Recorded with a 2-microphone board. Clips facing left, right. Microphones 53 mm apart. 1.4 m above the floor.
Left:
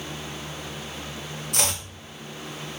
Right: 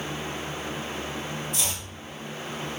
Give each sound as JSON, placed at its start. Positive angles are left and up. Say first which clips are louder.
{"t": 1.5, "sound": "chopping", "louder": "left 4 dB", "side_deg": 80, "distance_m": 2.5}